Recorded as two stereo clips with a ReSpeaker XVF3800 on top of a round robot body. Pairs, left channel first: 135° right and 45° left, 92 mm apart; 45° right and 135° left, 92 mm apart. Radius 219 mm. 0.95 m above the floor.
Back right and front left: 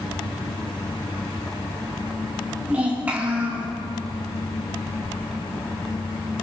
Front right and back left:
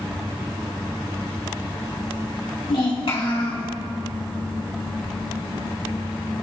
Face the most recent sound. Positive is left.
turn(degrees=-30)